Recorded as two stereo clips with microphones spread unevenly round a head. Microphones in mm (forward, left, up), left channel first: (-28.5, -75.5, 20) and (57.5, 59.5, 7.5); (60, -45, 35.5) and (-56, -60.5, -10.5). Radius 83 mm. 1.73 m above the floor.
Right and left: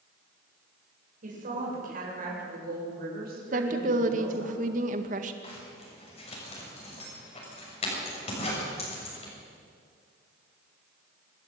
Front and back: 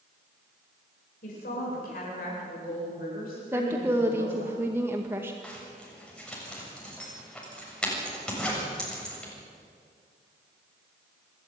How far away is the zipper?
About 7 m.